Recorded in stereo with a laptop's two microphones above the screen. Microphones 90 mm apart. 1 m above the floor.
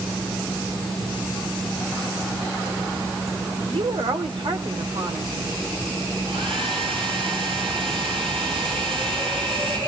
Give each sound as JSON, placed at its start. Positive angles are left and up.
{"t": 3.7, "sound": "a woman speaking", "side_deg": -75, "distance_m": 4.0}
{"t": 6.2, "sound": "a hair dryer", "side_deg": -75, "distance_m": 8.0}